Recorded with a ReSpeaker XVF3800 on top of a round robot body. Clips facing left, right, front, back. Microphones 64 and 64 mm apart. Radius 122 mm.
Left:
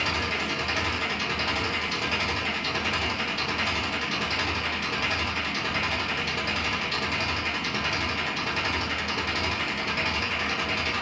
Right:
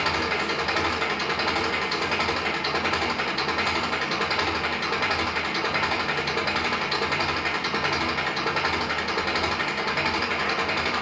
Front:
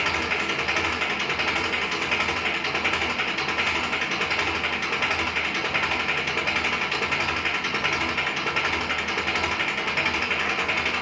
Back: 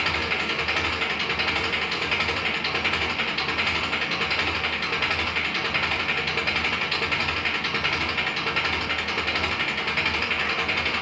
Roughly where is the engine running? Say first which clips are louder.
Right 3 dB, front 1 dB; right.